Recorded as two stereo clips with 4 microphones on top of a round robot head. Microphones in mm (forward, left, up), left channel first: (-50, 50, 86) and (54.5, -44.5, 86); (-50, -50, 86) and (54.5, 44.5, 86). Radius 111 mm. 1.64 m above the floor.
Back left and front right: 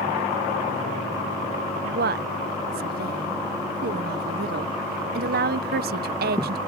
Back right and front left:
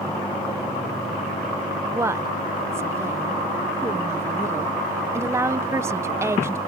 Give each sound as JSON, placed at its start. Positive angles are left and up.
{"t": 1.8, "sound": "a woman speaking", "azimuth_deg": -30}